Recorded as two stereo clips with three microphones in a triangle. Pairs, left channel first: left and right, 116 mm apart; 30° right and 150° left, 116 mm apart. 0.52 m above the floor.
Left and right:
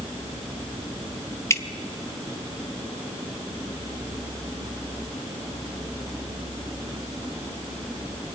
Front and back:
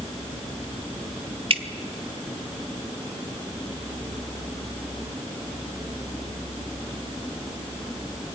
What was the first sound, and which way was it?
Dripping, 150° left.